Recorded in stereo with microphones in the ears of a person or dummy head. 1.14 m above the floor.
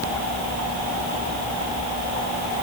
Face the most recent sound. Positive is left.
No sound to turn to.